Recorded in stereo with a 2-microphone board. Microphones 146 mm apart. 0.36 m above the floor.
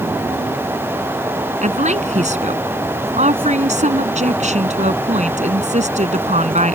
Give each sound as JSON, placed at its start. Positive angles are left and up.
{"t": 1.6, "sound": "a woman speaking", "side_deg": -50}